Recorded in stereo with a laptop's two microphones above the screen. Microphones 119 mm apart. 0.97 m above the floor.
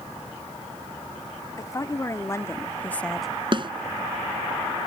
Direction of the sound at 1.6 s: 30° left (ahead or behind).